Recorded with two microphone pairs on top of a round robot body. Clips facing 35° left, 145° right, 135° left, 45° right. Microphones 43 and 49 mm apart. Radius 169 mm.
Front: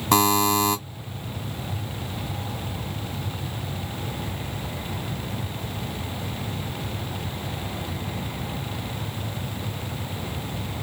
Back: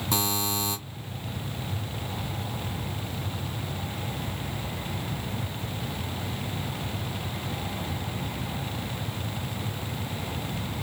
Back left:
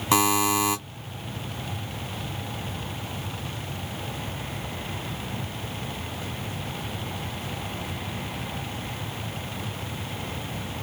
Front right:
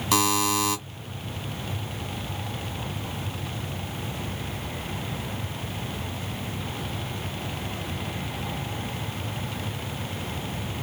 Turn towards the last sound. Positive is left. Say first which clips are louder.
# front 11 dB, back left 2 dB
turn(degrees=70)